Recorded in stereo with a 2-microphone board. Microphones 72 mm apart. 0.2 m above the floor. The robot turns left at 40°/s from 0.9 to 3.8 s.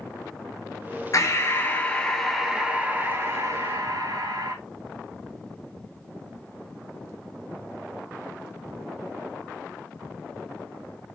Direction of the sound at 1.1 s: 50° left.